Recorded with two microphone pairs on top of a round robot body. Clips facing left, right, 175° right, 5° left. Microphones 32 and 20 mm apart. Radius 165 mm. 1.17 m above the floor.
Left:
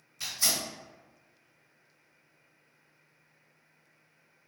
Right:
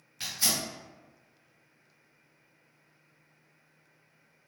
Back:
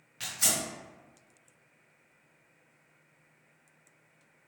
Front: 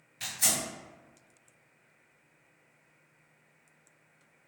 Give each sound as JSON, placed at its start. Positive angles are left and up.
{"t": 0.2, "sound": "tearing paper", "azimuth_deg": -150, "distance_m": 1.8}